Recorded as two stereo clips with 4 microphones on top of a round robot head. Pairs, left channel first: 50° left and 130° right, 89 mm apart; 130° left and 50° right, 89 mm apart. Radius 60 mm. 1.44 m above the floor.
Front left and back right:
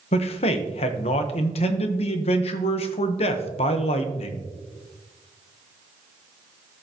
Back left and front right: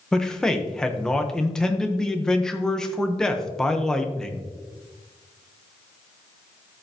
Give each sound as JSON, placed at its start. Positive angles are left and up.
{"t": 0.1, "sound": "a man speaking", "azimuth_deg": 50, "distance_m": 1.0}